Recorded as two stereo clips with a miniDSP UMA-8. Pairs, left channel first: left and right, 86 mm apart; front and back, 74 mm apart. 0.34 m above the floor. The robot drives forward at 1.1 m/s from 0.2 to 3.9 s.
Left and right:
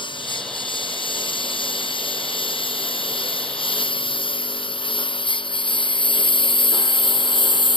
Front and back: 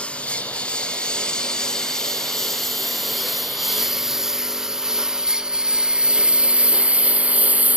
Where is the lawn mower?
75° left; by 7.8 s 110° left.